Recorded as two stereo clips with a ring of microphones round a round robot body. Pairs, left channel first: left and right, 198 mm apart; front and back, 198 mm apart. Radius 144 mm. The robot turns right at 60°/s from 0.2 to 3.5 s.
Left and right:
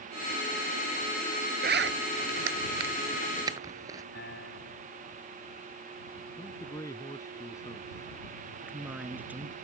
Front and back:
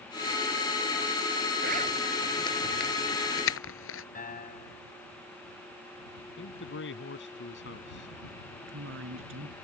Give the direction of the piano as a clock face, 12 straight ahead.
11 o'clock.